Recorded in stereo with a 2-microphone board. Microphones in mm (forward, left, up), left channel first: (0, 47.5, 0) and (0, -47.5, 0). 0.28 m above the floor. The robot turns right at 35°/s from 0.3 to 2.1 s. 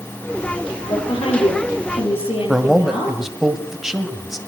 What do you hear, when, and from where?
0.9 s a woman speaking: 60° left, 8 m; by 3.2 s 105° left, 8 m
2.5 s a man speaking: 5° right (ahead or behind), 1.7 m